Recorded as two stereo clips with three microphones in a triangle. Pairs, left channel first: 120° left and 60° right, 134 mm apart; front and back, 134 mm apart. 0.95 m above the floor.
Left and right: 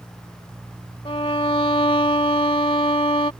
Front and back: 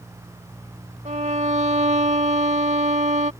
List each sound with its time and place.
1.1 s a violin: 160° left